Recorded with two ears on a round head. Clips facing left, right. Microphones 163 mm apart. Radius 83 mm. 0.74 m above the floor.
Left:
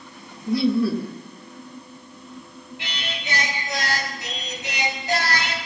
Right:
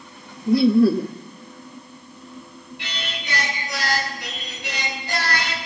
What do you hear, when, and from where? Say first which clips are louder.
0.5 s laughter: right 5 dB; 35° right (ahead or behind), 0.6 m
2.8 s singing: even; 40° left (ahead or behind), 4 m